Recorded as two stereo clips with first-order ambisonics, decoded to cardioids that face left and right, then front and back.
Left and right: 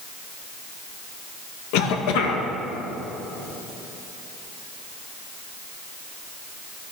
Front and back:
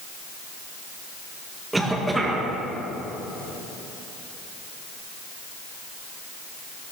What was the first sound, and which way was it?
A cough, 95° left.